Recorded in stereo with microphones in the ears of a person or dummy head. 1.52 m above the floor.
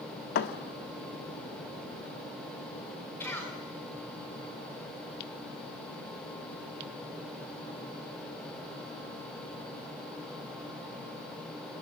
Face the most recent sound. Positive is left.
turn(degrees=15)  # may be behind; listen again after turning